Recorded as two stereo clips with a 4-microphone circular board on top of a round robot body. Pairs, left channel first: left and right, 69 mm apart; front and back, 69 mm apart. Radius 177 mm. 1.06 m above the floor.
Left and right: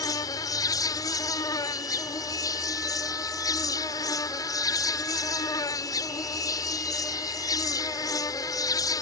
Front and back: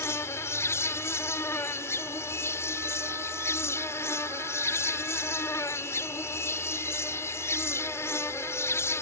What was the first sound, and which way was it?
An insect, 55° left.